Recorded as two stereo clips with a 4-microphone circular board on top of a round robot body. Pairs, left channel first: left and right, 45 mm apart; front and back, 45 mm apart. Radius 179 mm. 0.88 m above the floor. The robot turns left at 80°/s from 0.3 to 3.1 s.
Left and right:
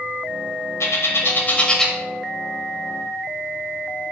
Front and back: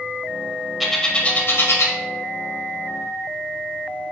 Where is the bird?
90° left, 0.9 m; by 1.9 s straight ahead, 0.9 m.